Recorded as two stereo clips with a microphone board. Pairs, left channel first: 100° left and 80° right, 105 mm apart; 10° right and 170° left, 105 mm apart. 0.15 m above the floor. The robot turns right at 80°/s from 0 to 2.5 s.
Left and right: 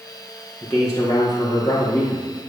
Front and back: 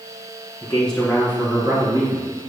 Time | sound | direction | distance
0.6 | a man speaking | 45° left | 1.9 m